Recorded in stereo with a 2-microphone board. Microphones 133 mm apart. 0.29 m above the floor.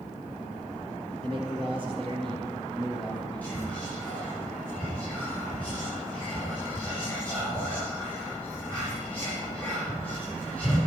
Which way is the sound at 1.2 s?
45° right (ahead or behind).